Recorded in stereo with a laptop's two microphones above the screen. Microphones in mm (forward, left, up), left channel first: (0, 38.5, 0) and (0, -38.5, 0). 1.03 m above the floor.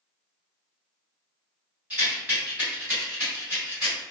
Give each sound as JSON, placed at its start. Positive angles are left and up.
{"t": 1.9, "sound": "a rattle", "side_deg": -20, "distance_m": 1.5}